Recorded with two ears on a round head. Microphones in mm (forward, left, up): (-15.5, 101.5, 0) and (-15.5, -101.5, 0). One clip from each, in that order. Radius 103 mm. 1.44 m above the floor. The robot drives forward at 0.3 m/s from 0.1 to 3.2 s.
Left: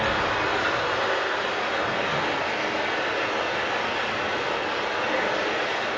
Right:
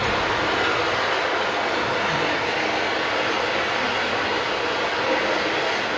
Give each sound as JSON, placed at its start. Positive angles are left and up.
{"t": 0.0, "sound": "running water", "side_deg": -25, "distance_m": 1.7}